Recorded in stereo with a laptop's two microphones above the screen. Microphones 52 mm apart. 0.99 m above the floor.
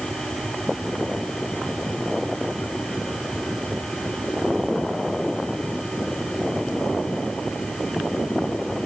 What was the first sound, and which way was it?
A machine running, 10° left (ahead or behind).